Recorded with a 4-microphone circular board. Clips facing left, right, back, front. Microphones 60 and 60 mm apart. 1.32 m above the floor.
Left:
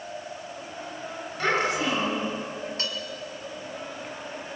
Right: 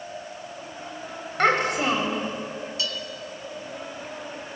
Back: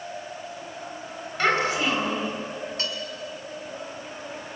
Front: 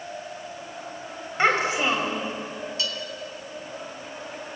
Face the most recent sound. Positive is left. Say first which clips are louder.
# right 4 dB, front 2 dB
turn(degrees=135)